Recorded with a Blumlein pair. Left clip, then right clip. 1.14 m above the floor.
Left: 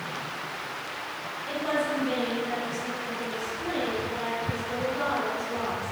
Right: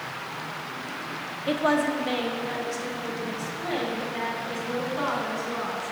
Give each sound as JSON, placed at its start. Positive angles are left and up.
{"t": 1.5, "sound": "a woman speaking", "azimuth_deg": -60, "distance_m": 0.9}